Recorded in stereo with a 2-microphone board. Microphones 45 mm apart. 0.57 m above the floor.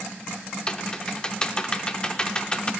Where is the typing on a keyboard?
20° left (ahead or behind), 0.6 m.